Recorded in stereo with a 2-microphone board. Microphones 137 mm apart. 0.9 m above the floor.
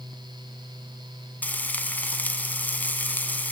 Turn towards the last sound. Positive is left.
turn(degrees=10)  # may be behind; listen again after turning